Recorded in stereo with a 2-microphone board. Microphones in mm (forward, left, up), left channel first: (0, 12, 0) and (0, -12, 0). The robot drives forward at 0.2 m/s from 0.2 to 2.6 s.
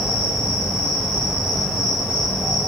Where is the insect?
15° right (ahead or behind), 2.0 m.